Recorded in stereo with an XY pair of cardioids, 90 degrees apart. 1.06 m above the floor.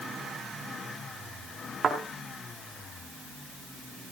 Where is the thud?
55° right, 4 m.